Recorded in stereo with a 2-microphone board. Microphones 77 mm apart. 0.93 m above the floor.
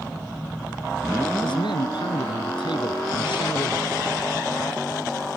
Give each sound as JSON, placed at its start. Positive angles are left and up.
{"t": 1.4, "sound": "a man speaking", "side_deg": 85}